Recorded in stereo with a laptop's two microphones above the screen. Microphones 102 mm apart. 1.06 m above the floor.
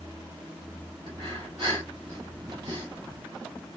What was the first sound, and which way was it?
Breathing, 45° right (ahead or behind).